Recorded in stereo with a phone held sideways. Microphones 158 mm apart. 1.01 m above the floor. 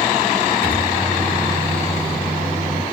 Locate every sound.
0.6 s a microwave: 70° right (ahead or behind), 1.6 m